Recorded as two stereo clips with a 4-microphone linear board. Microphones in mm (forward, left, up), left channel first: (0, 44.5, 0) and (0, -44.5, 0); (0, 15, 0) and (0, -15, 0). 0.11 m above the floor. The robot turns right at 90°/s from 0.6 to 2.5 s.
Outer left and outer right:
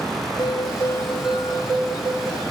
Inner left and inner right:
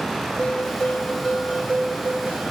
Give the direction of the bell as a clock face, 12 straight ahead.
8 o'clock.